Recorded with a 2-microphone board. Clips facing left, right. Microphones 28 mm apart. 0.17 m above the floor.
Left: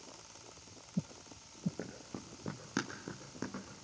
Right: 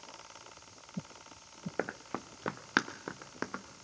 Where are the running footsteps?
80° right, 0.7 m; by 3.6 s 40° right (ahead or behind), 1.8 m.